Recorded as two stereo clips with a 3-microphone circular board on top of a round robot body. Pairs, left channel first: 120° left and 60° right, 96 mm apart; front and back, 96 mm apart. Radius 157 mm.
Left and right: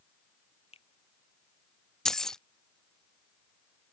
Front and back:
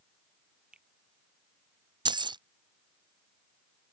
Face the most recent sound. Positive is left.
turn(degrees=-155)